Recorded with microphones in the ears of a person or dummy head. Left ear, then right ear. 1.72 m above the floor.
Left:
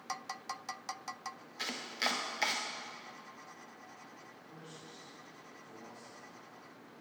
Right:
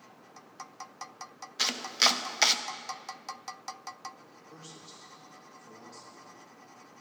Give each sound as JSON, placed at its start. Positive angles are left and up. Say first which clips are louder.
{"t": 1.6, "sound": "chopping", "louder": "right 10 dB", "side_deg": -30, "distance_m": 0.6}
{"t": 4.5, "sound": "a man speaking", "louder": "right 4 dB", "side_deg": -45, "distance_m": 2.5}